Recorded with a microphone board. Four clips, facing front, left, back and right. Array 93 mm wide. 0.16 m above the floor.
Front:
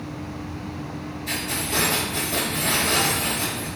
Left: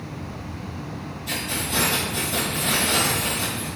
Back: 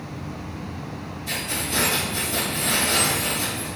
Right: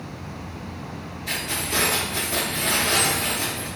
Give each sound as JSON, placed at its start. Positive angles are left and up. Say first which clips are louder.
{"t": 1.3, "sound": "keys jangling", "louder": "even, front 1 dB", "azimuth_deg": -70, "distance_m": 2.0}